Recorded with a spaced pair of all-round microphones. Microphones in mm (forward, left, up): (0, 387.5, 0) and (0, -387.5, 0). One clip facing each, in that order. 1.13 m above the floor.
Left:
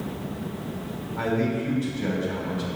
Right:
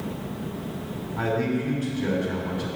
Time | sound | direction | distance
1.2 | a man speaking | 15° left (ahead or behind) | 3 m